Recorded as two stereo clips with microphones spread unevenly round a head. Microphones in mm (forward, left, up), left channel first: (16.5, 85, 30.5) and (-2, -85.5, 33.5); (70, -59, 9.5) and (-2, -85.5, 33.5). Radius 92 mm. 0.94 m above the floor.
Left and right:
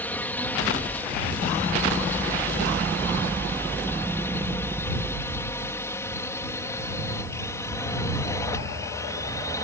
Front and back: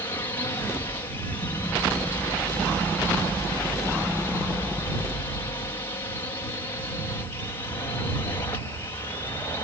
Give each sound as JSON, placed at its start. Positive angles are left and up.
{"t": 0.0, "sound": "a drone", "azimuth_deg": 10}